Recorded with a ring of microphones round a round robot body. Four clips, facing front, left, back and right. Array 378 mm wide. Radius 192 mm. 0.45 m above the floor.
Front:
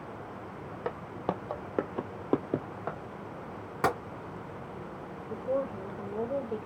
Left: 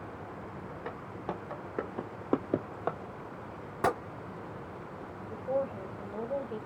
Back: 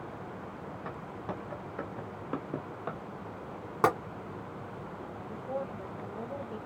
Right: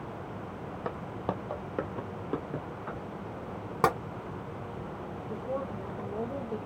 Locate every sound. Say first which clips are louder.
0.8 s footsteps: right 5 dB, front 7 dB; 35° right, 1.1 m; by 3.0 s 85° left, 0.7 m
3.8 s tapping: right 3 dB, back 2 dB; 105° right, 1.6 m
5.3 s a woman speaking: left 3 dB, front 6 dB; 40° right, 1.4 m